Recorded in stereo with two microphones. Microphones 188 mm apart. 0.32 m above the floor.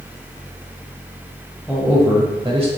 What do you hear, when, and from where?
1.7 s a man speaking: centre (ahead or behind), 1.3 m; by 2.7 s 35° right (ahead or behind), 1.4 m